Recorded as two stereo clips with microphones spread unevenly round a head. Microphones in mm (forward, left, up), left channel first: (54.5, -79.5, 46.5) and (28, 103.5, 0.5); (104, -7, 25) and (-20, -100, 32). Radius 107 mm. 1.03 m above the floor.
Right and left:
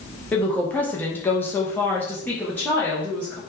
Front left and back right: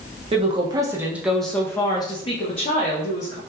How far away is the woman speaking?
About 0.8 m.